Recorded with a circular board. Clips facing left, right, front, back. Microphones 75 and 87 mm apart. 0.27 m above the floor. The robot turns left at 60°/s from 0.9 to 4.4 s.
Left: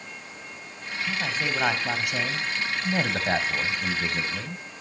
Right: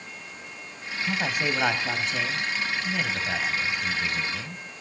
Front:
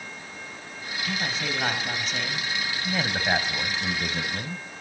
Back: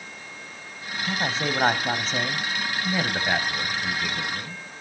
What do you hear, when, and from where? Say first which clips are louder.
1.1 s a man speaking: right 2 dB, back 4 dB; 145° right, 1.5 m; by 4.6 s 15° left, 1.5 m